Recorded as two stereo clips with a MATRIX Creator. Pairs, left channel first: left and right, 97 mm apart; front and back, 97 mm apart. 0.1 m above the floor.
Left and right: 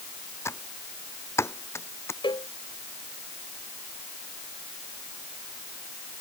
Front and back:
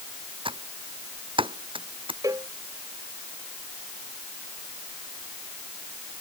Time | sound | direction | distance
0.5 | typing on a keyboard | 155° left | ?
2.2 | a cowbell | 125° left | ?